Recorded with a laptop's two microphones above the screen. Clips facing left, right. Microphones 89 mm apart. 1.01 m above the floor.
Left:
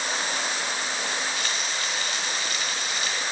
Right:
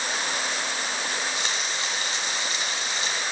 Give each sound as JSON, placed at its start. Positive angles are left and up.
{"t": 1.4, "sound": "frying", "side_deg": -25, "distance_m": 1.0}